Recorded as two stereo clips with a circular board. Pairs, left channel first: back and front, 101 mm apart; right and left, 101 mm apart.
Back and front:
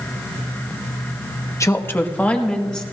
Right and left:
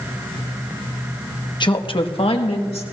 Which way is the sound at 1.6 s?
125° right.